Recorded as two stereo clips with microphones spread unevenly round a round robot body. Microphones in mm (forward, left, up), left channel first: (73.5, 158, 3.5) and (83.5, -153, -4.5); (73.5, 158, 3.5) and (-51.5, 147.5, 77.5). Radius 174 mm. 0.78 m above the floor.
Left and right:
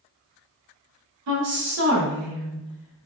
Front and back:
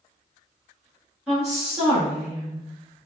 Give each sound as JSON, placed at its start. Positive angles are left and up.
{"t": 1.3, "sound": "a woman speaking", "azimuth_deg": -65, "distance_m": 1.2}